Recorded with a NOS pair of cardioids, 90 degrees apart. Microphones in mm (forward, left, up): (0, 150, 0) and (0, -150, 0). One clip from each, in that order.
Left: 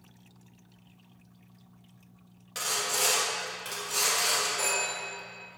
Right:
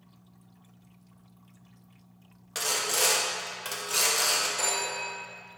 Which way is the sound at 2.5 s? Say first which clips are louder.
Right 2 dB; 25° right.